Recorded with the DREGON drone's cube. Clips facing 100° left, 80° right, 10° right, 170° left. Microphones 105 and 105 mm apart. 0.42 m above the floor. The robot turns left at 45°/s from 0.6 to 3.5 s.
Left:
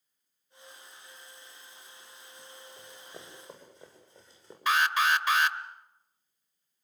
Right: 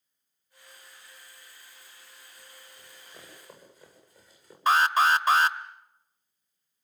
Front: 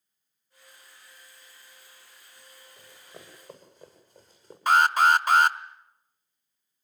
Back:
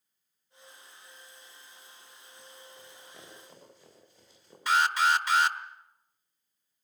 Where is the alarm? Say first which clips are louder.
Right 4 dB, front 5 dB; 35° right, 0.9 m.